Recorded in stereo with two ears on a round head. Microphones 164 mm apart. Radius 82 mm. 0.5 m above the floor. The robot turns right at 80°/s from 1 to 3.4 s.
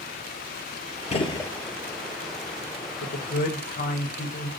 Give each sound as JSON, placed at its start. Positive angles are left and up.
{"t": 1.1, "sound": "a gunshot", "azimuth_deg": 135, "distance_m": 0.7}
{"t": 3.0, "sound": "a man speaking", "azimuth_deg": 85, "distance_m": 1.3}